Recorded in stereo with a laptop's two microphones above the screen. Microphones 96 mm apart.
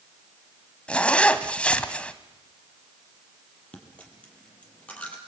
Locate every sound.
0.9 s a zipper: 15° left (ahead or behind), 1.4 m
3.7 s a dropped coin: 15° left (ahead or behind), 5.5 m